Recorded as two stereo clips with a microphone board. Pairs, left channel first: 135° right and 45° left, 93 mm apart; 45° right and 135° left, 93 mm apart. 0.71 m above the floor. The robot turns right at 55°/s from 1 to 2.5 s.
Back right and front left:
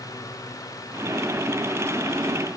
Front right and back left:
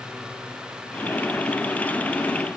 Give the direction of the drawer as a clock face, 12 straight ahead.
I don't hear a drawer.